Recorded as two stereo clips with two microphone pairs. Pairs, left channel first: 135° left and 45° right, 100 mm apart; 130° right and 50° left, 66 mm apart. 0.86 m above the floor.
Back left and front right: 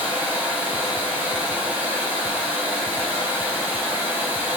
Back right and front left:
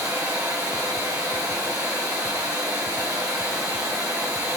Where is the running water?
25° left, 2.5 m.